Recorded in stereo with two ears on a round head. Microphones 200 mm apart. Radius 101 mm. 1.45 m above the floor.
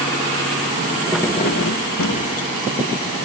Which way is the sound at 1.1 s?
5° right (ahead or behind).